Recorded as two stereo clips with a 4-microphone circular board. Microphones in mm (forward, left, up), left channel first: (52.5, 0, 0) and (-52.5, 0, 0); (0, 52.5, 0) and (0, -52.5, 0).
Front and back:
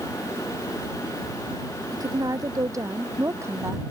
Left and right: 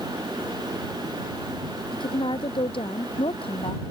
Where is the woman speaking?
125° left; by 3.8 s 115° left.